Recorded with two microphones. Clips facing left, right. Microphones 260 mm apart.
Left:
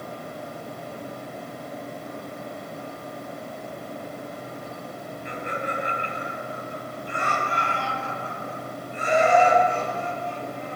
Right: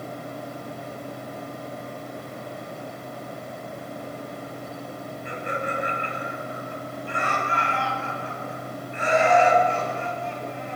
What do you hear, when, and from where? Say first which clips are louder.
5.2 s laughter: right 1 dB; 55° right (ahead or behind), 6.5 m; by 10.8 s 85° right, 6 m